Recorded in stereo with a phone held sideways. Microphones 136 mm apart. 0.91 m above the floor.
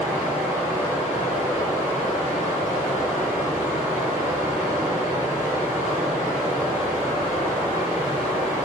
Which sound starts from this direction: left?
Running water, at 0.0 s.